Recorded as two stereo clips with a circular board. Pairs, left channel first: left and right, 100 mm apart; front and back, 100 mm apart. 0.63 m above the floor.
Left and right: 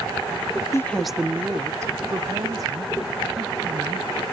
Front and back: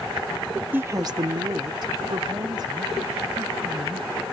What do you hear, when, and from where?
0.7 s a woman speaking: 120° left; by 4.2 s 135° right